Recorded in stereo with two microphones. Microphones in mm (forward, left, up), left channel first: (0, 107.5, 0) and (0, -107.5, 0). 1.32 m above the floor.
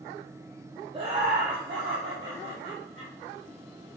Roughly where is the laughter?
Right.